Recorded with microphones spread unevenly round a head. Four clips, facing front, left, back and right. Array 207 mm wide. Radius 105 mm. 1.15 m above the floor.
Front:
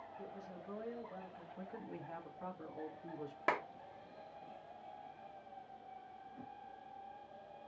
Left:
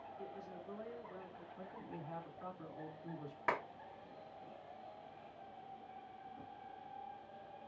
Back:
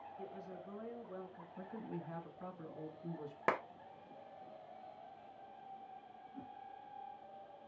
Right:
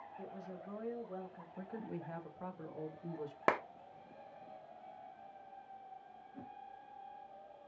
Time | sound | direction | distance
0.2 | a woman speaking | 95° right | 1.3 m
1.6 | a man speaking | 100° right | 1.2 m
3.5 | a clap | 105° right | 0.7 m
6.3 | a whoosh | 100° right | 1.4 m